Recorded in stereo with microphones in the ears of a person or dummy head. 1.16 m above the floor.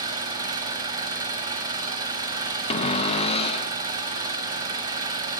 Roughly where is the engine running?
Centre.